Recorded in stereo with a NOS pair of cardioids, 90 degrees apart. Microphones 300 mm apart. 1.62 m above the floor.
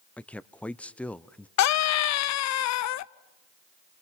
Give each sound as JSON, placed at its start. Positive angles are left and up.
{"t": 0.2, "sound": "a man speaking", "azimuth_deg": 5, "distance_m": 0.8}
{"t": 1.6, "sound": "a scream", "azimuth_deg": 65, "distance_m": 0.7}